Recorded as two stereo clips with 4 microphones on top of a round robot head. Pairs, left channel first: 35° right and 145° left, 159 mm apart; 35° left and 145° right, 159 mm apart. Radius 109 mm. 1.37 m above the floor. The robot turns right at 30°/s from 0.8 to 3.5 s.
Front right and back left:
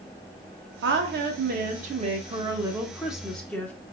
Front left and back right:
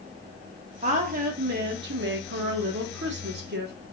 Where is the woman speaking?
160° left, 1.1 m; by 3.8 s 115° right, 1.1 m.